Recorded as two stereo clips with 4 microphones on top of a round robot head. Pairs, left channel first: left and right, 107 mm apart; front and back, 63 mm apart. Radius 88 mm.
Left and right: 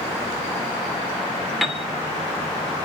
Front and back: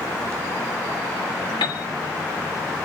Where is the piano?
Straight ahead, 1.1 m.